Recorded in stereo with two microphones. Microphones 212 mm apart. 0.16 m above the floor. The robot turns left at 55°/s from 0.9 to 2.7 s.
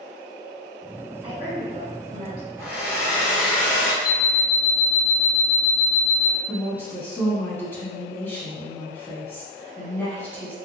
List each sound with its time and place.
1.2 s a woman speaking: 45° right, 1.2 m; by 2.5 s 115° right, 1.2 m
2.6 s a hair dryer: 10° right (ahead or behind), 1.5 m; by 3.9 s 5° right (ahead or behind), 1.5 m
4.0 s an alarm clock: 20° left (ahead or behind), 0.5 m
6.5 s a woman speaking: 10° left (ahead or behind), 1.1 m